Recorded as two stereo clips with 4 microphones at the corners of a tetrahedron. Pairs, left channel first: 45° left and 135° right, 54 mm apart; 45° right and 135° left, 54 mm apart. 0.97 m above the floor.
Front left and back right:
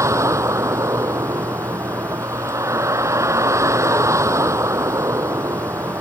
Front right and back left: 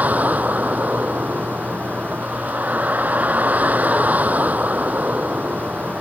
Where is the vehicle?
160° right.